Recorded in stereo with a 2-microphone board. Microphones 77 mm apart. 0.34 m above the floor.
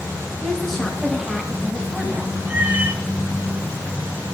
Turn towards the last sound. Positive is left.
turn(degrees=-25)  # may be behind; listen again after turning